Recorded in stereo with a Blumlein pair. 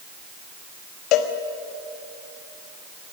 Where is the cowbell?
40° left, 1.5 m.